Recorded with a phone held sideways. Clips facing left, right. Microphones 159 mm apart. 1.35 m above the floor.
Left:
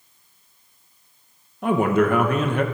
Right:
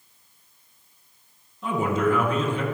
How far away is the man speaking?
About 0.9 m.